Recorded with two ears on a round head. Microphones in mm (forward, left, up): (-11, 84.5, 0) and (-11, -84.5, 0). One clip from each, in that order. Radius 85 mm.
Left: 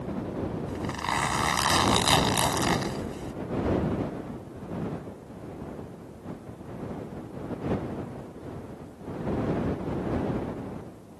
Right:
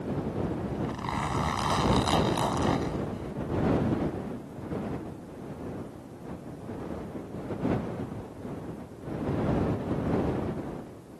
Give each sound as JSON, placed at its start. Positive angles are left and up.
{"t": 0.7, "sound": "a zipper", "side_deg": 45}